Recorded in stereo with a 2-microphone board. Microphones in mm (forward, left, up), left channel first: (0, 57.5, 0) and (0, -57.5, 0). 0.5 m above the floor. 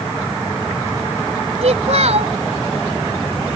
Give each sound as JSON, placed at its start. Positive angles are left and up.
{"t": 1.6, "sound": "a child speaking", "side_deg": -75}